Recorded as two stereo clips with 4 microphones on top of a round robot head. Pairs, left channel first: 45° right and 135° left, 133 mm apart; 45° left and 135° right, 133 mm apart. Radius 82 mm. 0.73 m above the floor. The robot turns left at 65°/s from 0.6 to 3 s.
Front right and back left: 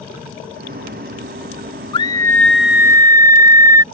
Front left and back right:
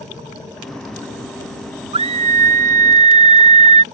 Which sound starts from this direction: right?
A scream, at 1.9 s.